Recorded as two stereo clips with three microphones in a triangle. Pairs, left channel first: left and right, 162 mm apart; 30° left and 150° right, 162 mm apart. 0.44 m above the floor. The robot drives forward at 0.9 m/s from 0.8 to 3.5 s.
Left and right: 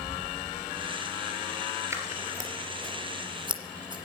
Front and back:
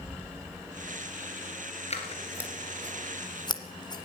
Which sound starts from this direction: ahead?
Scissors, at 1.9 s.